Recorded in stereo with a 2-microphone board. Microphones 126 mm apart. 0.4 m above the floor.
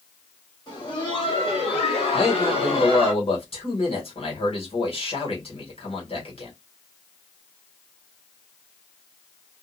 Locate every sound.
0.7 s laughter: 35° left (ahead or behind), 1.8 m; by 3.1 s 45° left (ahead or behind), 1.5 m
2.1 s a man speaking: 50° left (ahead or behind), 1.4 m